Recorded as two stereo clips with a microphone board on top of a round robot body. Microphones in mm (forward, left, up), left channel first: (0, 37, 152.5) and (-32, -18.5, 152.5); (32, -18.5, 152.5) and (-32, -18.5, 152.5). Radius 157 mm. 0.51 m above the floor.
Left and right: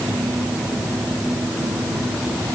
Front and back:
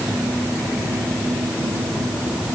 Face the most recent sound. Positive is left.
No sound to turn to.